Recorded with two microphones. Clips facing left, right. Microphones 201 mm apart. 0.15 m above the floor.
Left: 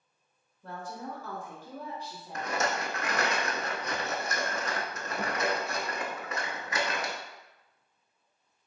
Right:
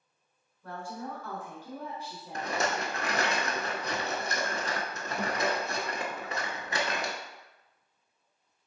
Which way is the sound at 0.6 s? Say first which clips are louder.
Right 1 dB; 30° left (ahead or behind).